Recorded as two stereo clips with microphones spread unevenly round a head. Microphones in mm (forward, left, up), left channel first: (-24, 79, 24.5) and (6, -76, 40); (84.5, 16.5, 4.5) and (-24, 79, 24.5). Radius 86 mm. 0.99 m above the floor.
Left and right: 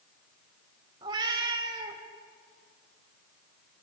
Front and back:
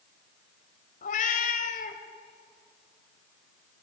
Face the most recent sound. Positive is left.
turn(degrees=-20)